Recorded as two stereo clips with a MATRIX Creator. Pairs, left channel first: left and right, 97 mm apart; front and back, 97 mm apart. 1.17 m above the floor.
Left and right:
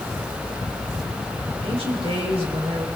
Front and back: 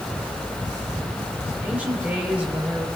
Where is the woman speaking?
105° right, 6.5 m.